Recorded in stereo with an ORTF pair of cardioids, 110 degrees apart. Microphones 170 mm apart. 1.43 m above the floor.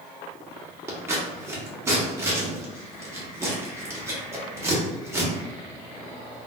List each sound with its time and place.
0.9 s scissors: 15° right, 1.2 m